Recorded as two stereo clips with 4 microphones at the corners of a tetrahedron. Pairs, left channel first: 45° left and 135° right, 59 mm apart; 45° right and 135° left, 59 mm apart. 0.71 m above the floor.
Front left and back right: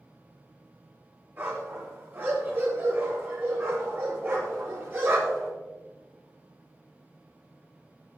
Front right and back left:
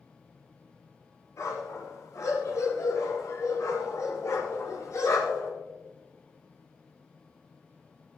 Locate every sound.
1.4 s a dog barking: 80° right, 6 m; by 5.5 s 85° right, 7.5 m